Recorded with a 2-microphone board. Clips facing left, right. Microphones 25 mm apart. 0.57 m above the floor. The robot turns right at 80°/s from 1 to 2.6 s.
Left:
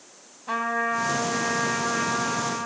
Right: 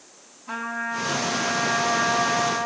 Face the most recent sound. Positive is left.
turn(degrees=-100)